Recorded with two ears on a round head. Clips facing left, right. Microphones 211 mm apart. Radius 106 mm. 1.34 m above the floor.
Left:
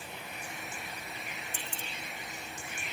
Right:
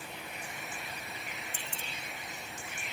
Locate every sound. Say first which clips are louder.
1.5 s keys jangling: left 1 dB; 35° left (ahead or behind), 0.9 m